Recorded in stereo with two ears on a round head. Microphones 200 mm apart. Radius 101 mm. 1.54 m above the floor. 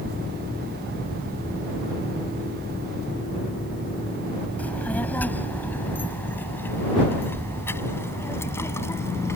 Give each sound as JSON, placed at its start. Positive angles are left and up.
{"t": 4.6, "sound": "a child speaking", "side_deg": 5}